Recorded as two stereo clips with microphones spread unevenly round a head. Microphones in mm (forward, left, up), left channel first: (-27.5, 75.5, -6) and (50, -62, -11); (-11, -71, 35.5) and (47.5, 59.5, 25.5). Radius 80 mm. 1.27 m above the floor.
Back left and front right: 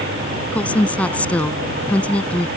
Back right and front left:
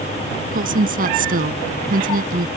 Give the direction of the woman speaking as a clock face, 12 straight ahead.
11 o'clock.